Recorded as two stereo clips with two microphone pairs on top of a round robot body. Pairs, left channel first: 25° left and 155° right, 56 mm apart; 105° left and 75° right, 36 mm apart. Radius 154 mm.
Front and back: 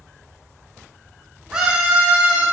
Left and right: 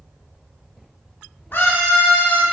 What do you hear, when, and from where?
1.5 s a scream: 125° left, 1.3 m